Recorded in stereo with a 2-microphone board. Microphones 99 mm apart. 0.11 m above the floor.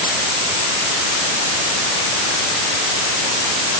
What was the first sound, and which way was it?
Only background noise.